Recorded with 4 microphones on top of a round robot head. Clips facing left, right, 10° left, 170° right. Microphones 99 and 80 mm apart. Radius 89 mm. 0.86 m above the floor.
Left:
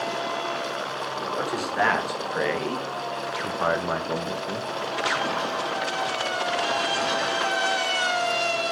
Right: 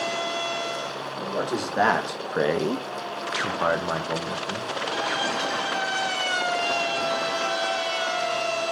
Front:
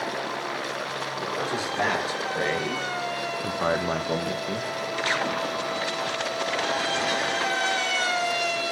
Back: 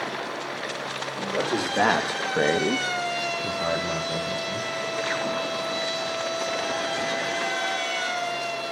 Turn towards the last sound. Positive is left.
turn(degrees=10)